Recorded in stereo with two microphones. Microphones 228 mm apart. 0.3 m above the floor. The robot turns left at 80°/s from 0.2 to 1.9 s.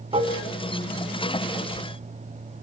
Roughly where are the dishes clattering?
Right.